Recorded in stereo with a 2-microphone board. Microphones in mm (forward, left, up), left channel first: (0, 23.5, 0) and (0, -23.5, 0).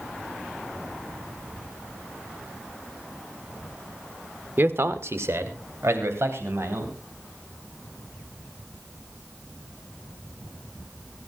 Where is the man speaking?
45° right (ahead or behind), 1.4 m; by 7.0 s 60° right (ahead or behind), 4.5 m.